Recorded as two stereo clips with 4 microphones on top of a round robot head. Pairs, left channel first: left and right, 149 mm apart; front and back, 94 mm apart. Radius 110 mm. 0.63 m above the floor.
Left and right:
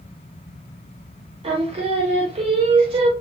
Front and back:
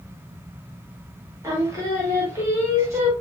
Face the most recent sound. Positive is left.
turn(degrees=-130)